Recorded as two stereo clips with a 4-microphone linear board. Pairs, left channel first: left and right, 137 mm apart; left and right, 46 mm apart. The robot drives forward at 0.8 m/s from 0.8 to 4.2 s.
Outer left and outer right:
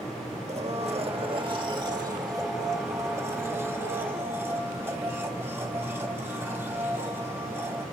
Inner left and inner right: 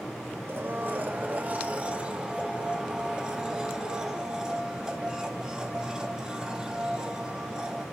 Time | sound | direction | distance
0.5 | a blender | 45° right (ahead or behind) | 1.4 m